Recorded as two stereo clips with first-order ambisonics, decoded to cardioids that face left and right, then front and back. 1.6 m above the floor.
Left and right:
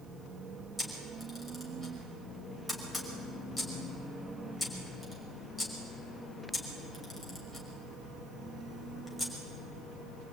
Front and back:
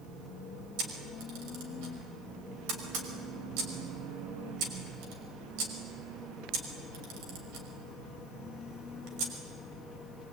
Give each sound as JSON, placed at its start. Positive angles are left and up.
{"t": 0.8, "sound": "a camera shutter", "azimuth_deg": 180, "distance_m": 5.5}